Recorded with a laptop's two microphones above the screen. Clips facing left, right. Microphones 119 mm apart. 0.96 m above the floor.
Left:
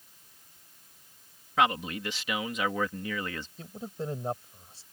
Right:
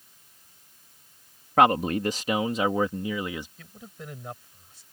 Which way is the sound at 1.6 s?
50° right (ahead or behind).